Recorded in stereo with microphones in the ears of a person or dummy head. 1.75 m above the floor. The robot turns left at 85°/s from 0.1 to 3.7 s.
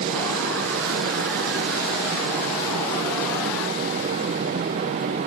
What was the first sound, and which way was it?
Only background noise.